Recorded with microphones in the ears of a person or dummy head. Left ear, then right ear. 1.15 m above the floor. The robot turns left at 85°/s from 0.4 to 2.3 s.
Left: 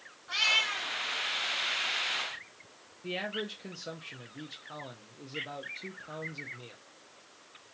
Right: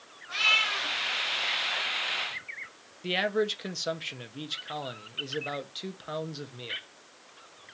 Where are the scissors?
No scissors in this recording.